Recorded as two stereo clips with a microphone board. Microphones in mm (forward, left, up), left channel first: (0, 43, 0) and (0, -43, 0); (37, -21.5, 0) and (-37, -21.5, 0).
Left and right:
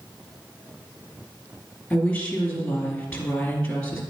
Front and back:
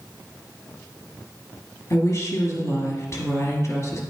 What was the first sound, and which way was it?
A woman speaking, 20° left.